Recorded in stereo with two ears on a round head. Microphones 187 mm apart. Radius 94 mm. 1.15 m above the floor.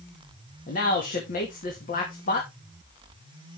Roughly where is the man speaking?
Left.